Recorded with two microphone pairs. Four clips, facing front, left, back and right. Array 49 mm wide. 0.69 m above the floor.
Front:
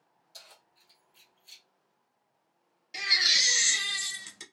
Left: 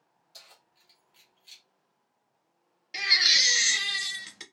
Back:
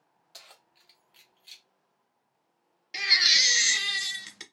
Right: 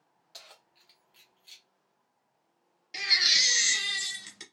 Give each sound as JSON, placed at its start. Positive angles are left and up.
{"t": 0.3, "sound": "keys jangling", "azimuth_deg": -140, "distance_m": 0.9}
{"t": 2.9, "sound": "a baby crying", "azimuth_deg": 135, "distance_m": 0.5}